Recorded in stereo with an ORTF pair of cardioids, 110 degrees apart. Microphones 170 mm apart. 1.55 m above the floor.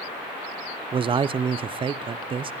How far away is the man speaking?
About 0.6 m.